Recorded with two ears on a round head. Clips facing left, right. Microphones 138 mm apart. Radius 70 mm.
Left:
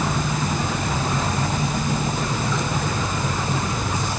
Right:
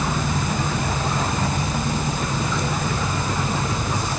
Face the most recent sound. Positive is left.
No sound to turn to.